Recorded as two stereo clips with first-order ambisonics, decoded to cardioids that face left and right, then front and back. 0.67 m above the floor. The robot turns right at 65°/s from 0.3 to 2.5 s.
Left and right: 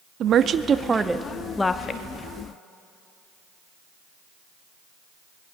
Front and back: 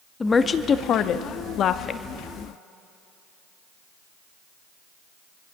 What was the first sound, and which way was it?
A woman speaking, 65° right.